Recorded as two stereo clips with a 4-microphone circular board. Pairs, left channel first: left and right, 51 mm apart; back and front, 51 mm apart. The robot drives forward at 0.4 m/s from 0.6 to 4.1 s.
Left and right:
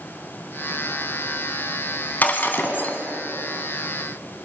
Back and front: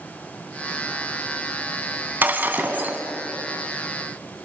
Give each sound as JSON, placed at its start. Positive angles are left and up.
{"t": 2.2, "sound": "breaking glass", "azimuth_deg": 40, "distance_m": 2.0}